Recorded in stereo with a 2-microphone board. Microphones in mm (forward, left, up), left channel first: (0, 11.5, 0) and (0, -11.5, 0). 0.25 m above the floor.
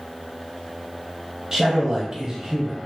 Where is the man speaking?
25° right (ahead or behind), 1.0 m.